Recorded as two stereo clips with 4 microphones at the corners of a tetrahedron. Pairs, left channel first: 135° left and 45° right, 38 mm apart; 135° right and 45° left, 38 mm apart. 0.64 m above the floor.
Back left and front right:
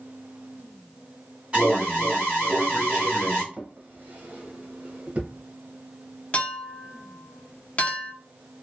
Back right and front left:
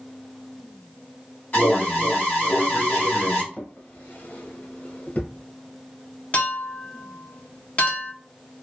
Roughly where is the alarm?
Right.